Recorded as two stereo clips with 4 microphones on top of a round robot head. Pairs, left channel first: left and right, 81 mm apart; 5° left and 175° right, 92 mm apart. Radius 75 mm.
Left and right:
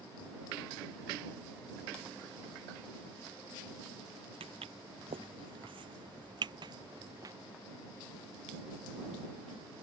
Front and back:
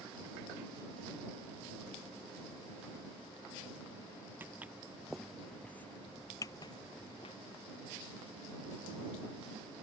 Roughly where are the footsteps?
Right.